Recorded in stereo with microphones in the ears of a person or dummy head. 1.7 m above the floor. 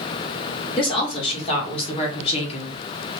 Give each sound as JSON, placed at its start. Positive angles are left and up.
{"t": 0.8, "sound": "a woman speaking", "side_deg": 35, "distance_m": 2.5}